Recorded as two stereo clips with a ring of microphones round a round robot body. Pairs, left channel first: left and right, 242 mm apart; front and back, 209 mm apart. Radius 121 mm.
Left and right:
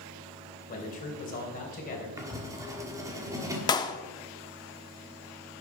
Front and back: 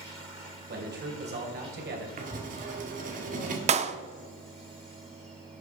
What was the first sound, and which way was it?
A man speaking, 145° left.